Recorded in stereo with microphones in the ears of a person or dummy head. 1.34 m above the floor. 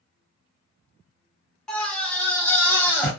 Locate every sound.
1.7 s a scream: centre (ahead or behind), 0.6 m; by 3.1 s 10° left (ahead or behind), 1.5 m